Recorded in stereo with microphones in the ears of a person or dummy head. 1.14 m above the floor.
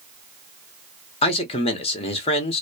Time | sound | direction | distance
1.2 | a man speaking | 30° left (ahead or behind) | 0.7 m